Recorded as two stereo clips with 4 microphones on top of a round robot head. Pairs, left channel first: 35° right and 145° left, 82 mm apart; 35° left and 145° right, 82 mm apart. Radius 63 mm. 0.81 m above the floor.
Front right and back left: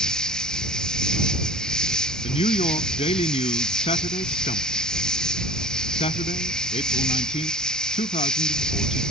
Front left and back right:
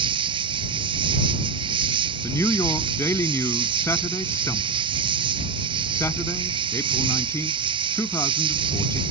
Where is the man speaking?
25° right.